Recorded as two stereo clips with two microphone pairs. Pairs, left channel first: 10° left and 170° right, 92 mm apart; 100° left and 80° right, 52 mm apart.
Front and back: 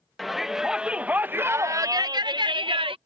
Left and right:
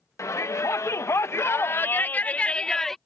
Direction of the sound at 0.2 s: 100° left.